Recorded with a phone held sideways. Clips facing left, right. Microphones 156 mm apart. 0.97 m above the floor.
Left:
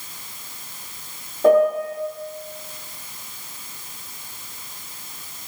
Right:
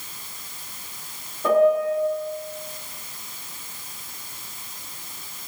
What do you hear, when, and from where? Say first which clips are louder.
1.4 s a piano: left 2 dB; 50° left (ahead or behind), 0.8 m